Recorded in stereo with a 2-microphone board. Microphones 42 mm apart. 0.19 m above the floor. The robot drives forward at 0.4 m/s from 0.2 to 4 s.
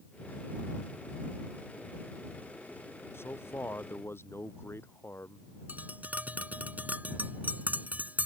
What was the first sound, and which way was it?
A man speaking, 65° left (ahead or behind).